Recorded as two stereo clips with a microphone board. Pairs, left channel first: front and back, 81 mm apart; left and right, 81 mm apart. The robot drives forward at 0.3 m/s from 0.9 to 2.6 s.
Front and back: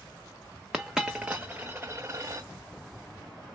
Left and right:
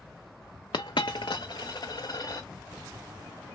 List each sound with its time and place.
0.7 s a dropped coin: 95° left, 0.6 m; by 2.5 s 130° left, 0.8 m